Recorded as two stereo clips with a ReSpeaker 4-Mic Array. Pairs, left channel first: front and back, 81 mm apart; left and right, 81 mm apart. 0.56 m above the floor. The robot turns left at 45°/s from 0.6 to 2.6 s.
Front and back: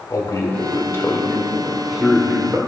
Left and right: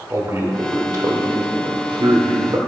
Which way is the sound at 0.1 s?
40° right.